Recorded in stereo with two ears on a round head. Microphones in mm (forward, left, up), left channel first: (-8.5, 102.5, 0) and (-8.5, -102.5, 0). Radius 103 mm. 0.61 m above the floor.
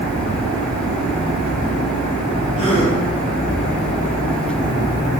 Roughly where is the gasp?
Left.